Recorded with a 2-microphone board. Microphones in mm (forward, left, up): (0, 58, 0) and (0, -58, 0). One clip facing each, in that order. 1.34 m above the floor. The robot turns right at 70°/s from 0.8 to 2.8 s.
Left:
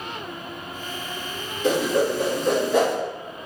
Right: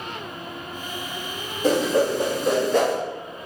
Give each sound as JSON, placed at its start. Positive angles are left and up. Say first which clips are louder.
{"t": 1.6, "sound": "a whoosh", "louder": "right 1 dB", "side_deg": -40, "distance_m": 0.7}